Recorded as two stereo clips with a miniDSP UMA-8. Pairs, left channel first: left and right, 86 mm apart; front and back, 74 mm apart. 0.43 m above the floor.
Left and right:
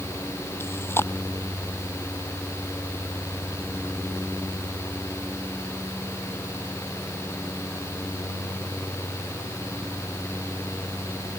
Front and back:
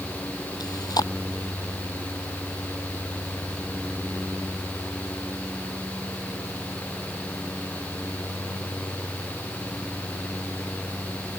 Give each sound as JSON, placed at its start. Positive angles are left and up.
{"t": 0.6, "sound": "chewing", "azimuth_deg": 30}